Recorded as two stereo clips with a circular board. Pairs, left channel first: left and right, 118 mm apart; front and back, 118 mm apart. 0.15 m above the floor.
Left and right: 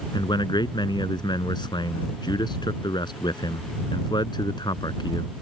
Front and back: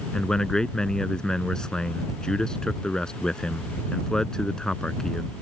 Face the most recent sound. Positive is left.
turn(degrees=80)